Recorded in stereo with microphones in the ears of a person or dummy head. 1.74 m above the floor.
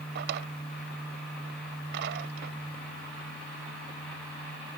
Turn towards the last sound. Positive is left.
turn(degrees=-60)  # may be behind; listen again after turning